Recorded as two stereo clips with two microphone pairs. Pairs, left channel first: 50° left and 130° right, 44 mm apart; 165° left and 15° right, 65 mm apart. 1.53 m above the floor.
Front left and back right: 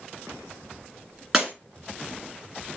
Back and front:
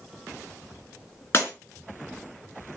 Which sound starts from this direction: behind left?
Breaking glass, at 1.3 s.